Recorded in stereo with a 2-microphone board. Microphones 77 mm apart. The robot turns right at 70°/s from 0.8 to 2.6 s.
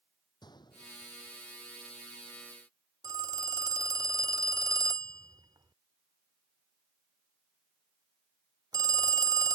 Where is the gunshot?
65° left (ahead or behind); by 1.4 s 25° left (ahead or behind).